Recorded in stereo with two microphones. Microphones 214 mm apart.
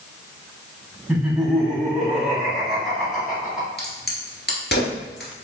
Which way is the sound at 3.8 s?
55° left (ahead or behind).